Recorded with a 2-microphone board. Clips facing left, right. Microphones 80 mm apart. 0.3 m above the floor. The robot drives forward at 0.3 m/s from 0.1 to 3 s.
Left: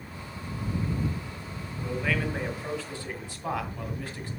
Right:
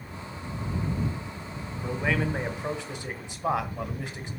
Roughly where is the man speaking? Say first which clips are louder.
Right 2 dB; right.